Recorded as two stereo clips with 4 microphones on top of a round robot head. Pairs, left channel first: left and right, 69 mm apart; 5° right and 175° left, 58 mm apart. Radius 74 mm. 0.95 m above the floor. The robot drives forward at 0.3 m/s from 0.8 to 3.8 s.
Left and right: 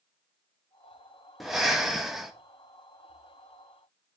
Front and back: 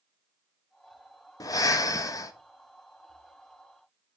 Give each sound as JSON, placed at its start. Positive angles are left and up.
{"t": 1.4, "sound": "breathing", "azimuth_deg": -5, "distance_m": 1.1}